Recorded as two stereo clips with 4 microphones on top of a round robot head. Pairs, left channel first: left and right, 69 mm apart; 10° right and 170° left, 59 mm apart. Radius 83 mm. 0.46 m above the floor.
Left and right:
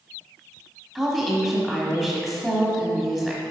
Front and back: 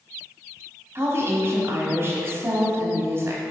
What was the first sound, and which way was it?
A woman speaking, straight behind.